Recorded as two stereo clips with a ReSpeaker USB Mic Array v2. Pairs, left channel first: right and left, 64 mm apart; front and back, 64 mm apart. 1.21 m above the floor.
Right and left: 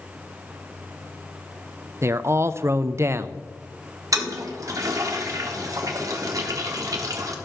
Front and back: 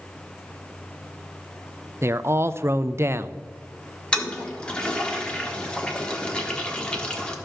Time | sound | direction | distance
2.0 | a man speaking | 135° left | 0.5 m
4.1 | a toilet flushing | 70° left | 1.4 m